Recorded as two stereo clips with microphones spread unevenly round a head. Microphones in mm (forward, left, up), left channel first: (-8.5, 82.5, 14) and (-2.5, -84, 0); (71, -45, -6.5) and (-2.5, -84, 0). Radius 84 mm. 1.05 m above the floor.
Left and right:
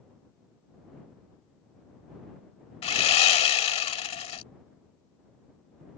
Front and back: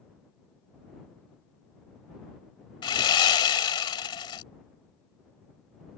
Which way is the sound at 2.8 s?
50° left.